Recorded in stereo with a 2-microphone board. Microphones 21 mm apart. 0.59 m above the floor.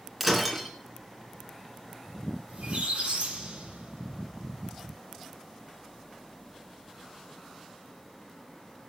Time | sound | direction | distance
0.2 | breaking glass | 10° right (ahead or behind) | 2.5 m
2.5 | a squeak | 60° right (ahead or behind) | 5.5 m